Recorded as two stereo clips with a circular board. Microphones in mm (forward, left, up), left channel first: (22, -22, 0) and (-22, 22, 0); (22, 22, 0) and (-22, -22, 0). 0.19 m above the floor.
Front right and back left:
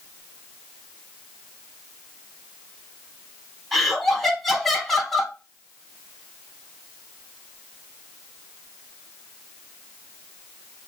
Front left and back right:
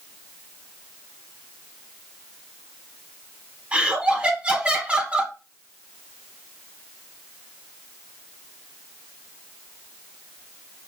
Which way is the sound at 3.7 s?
125° right.